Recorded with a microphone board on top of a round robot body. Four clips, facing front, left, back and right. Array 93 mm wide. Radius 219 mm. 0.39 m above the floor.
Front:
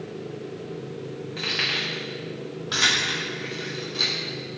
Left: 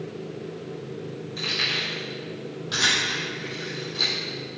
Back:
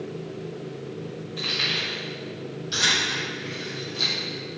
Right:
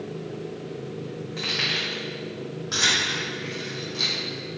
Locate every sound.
1.4 s keys jangling: 30° right, 3.5 m; by 4.1 s 10° right, 6 m